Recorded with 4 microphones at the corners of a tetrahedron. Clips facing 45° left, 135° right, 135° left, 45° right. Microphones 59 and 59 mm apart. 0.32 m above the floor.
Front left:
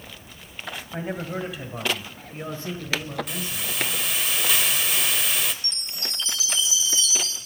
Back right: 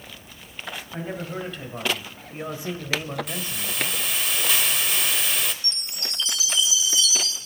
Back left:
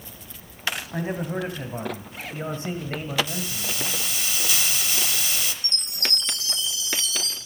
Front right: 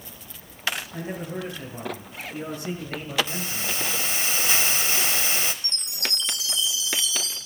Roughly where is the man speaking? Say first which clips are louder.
Front left 2 dB, back left 4 dB; behind left.